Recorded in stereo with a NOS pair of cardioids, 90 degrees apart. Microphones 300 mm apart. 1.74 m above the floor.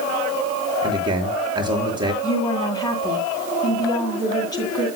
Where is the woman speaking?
15° left, 9.5 m.